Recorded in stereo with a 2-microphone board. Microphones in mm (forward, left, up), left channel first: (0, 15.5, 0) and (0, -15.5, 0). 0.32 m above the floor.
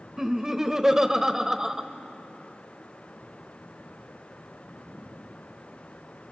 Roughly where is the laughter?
Centre.